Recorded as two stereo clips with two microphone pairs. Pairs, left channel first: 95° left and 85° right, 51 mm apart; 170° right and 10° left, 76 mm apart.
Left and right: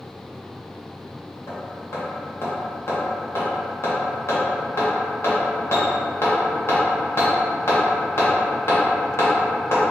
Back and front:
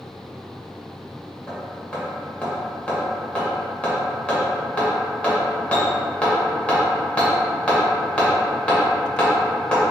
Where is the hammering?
120° left, 1.1 m.